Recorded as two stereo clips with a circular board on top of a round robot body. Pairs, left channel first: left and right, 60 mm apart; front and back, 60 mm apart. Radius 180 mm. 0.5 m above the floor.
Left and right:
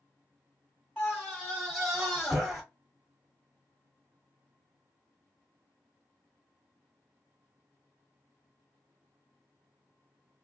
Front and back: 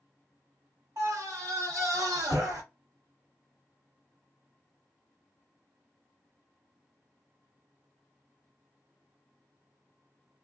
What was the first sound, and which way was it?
A scream, 170° left.